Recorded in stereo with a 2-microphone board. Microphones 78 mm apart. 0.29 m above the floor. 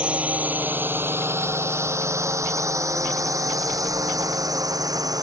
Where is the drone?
15° right (ahead or behind); by 5.2 s 55° right (ahead or behind).